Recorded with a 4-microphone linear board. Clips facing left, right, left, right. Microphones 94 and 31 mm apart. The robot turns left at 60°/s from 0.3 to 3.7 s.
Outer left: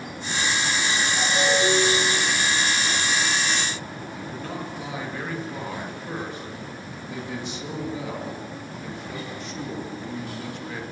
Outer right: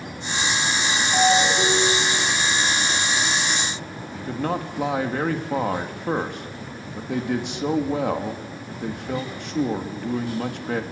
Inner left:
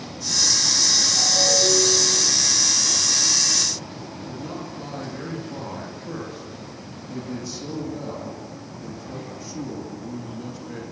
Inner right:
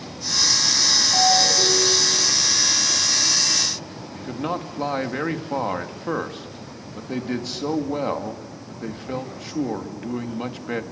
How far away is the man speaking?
About 3 m.